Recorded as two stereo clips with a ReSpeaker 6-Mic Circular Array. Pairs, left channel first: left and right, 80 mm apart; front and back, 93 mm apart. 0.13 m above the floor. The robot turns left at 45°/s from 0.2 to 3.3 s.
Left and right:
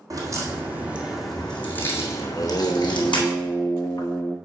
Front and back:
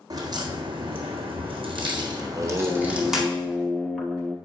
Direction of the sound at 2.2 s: 140° left.